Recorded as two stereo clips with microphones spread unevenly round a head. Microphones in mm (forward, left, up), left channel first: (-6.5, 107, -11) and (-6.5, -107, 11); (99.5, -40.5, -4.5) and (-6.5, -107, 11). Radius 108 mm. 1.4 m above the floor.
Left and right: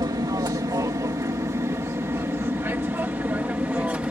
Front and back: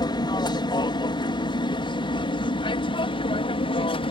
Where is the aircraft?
15° right; by 4.1 s 5° right.